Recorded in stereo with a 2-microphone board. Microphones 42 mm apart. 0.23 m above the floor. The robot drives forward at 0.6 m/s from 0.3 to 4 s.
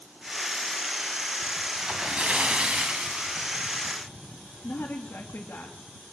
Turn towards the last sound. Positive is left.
turn(degrees=50)  # may be behind; listen again after turning